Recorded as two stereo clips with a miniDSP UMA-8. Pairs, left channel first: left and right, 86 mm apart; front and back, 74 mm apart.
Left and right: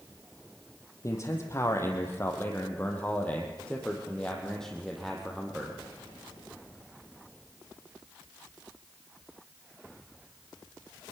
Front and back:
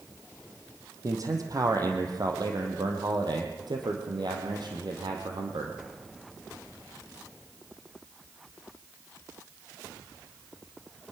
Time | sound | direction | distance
1.0 | a man speaking | 140° left | 4 m